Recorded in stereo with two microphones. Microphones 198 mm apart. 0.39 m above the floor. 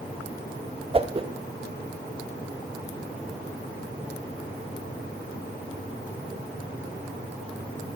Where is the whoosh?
30° right (ahead or behind), 0.5 m.